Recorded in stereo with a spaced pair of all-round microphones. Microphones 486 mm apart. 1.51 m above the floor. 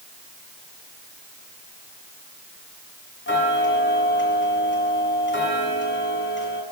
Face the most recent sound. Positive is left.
turn(degrees=25)  # may be behind; listen again after turning